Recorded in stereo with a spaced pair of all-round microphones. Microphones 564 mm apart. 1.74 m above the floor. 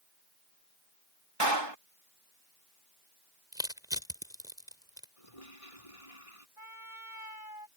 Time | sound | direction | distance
1.4 | a clap | 50° right (ahead or behind) | ?
3.5 | crushing | 5° right (ahead or behind) | ?
5.2 | a toilet flushing | 75° left (ahead or behind) | ?
6.6 | a trumpet | 60° right (ahead or behind) | ?